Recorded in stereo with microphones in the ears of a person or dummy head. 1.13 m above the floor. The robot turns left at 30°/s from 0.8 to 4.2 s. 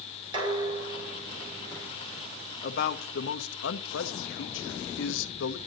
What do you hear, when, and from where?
0.3 s dishes clattering: 25° right, 3.5 m; by 1.9 s 60° right, 3.5 m
2.6 s a man speaking: 130° left, 1.3 m; by 5.6 s 80° left, 1.3 m